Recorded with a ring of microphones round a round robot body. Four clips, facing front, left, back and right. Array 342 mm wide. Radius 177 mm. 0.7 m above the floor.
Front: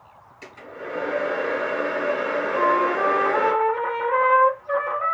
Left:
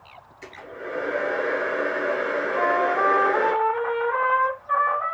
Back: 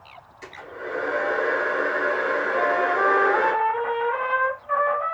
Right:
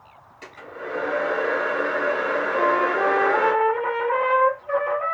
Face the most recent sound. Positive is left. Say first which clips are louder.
# right 1 dB, front 3 dB
turn(degrees=-65)